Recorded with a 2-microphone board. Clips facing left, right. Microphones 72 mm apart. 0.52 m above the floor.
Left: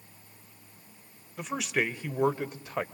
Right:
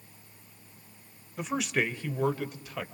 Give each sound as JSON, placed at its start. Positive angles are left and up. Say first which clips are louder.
{"t": 1.4, "sound": "a man speaking", "louder": "right 1 dB", "side_deg": -5, "distance_m": 1.7}